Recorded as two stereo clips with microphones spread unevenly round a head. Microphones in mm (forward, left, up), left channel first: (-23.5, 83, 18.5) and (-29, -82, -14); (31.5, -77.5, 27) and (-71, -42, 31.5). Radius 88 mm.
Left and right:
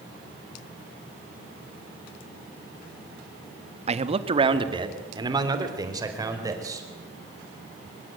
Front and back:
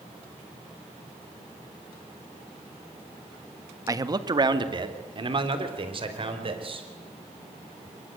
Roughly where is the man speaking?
Behind right.